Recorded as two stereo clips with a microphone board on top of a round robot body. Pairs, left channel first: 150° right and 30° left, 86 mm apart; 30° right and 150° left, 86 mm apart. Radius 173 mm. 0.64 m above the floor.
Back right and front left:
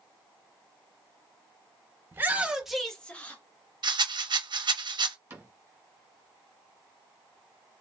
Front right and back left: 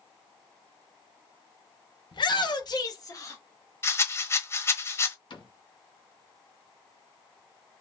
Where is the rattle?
25° left, 0.9 m.